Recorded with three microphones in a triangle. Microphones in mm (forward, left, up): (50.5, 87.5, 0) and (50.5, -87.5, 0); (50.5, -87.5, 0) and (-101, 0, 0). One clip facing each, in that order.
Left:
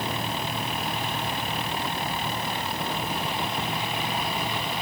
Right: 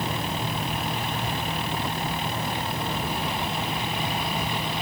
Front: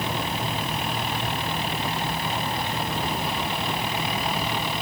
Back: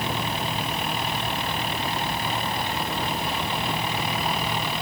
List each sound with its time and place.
Only background noise.